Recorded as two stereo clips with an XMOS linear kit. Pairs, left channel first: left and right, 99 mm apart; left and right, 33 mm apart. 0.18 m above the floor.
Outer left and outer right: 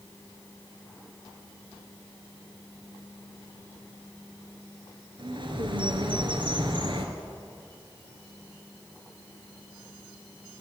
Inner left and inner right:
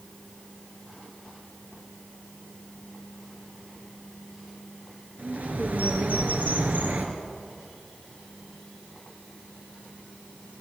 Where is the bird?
55° right (ahead or behind), 3 m.